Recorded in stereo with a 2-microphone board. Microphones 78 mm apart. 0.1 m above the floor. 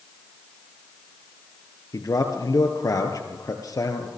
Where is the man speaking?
50° left (ahead or behind), 2 m.